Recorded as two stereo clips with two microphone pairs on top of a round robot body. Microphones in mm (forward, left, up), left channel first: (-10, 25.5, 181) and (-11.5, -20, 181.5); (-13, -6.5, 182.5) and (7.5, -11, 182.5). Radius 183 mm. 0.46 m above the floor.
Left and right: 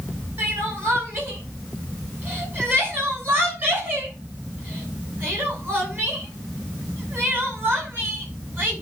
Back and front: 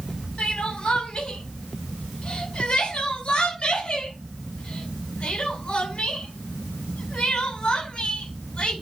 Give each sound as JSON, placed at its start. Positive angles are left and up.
{"t": 0.4, "sound": "crying", "azimuth_deg": -140, "distance_m": 6.5}